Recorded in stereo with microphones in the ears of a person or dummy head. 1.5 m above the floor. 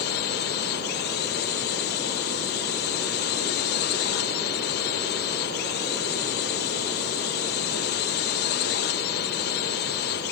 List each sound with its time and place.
0.0 s a drone: 55° left (ahead or behind)